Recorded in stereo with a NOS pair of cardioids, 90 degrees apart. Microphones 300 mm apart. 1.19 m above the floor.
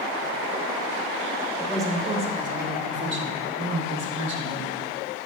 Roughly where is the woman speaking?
Ahead.